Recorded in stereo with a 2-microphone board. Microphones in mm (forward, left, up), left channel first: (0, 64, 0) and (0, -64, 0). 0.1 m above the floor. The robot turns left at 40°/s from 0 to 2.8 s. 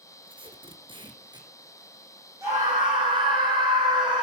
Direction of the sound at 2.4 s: 25° right (ahead or behind).